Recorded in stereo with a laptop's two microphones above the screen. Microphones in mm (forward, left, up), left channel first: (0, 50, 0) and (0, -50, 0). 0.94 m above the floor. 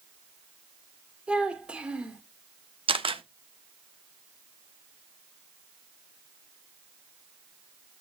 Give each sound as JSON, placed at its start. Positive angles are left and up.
{"t": 1.3, "sound": "a child speaking", "side_deg": -10, "distance_m": 2.0}
{"t": 2.9, "sound": "a camera shutter", "side_deg": -60, "distance_m": 0.7}